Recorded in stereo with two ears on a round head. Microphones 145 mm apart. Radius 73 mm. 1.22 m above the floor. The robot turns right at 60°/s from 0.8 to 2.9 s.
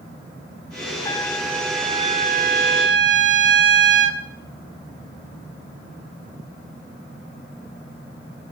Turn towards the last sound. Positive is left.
turn(degrees=-90)